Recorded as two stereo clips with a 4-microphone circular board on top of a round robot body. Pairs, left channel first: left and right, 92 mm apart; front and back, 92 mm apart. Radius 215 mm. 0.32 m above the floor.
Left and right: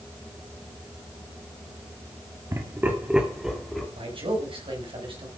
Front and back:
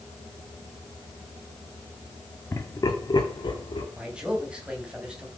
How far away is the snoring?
I don't hear snoring.